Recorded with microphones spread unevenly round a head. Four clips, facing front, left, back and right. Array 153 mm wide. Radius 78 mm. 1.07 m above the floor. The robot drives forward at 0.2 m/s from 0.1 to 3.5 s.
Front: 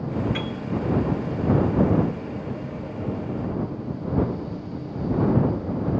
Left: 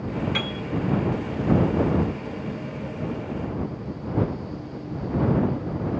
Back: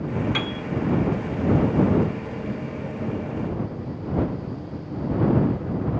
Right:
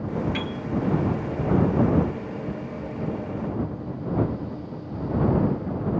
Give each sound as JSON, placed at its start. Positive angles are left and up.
{"t": 0.3, "sound": "a piano", "azimuth_deg": 160, "distance_m": 3.0}